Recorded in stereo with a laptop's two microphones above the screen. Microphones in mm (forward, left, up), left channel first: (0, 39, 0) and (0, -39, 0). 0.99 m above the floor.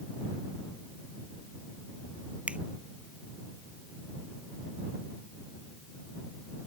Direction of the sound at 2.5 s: 15° right (ahead or behind).